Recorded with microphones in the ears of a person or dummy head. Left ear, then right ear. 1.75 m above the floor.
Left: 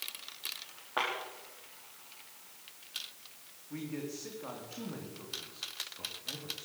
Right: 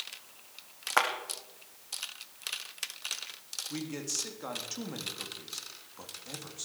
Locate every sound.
1.0 s a clap: 60° right (ahead or behind), 2.5 m
3.7 s a man speaking: 85° right, 3.5 m